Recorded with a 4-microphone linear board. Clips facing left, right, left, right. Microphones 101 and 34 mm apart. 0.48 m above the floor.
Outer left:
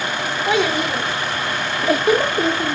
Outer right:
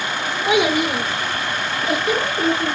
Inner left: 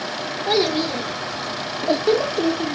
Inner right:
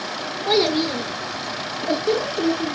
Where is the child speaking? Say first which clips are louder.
Outer right 2 dB, inner right 1 dB; 15° right (ahead or behind), 1.2 m; by 2.8 s 35° left (ahead or behind), 1.0 m.